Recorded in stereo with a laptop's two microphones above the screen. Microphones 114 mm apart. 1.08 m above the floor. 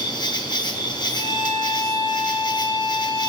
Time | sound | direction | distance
0.0 | an insect | 40° left (ahead or behind) | 0.7 m
1.1 | a violin | 35° right (ahead or behind) | 3 m